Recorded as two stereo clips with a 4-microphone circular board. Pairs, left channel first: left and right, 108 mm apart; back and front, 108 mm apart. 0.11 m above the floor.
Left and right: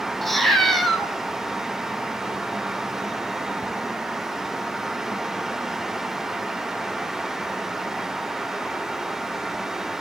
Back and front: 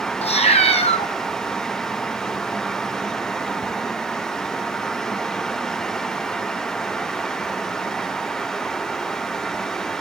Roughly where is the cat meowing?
Behind.